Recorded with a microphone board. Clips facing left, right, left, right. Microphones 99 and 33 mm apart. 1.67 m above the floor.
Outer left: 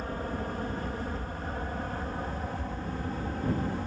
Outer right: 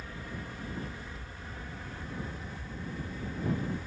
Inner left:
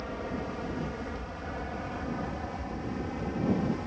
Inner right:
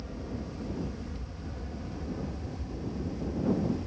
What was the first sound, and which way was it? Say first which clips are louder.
An aircraft: outer left 9 dB, inner left 4 dB; 45° left (ahead or behind).